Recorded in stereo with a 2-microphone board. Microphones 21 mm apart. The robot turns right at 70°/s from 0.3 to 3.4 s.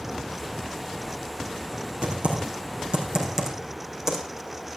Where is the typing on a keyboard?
60° right (ahead or behind), 4.5 m; by 4.2 s 25° right (ahead or behind), 4.5 m.